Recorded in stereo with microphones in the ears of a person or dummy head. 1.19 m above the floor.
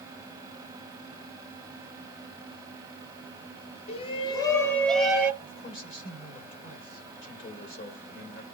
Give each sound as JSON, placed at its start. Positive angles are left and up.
{"t": 3.9, "sound": "a shout", "side_deg": 35, "distance_m": 2.0}
{"t": 5.4, "sound": "a man speaking", "side_deg": 40, "distance_m": 4.0}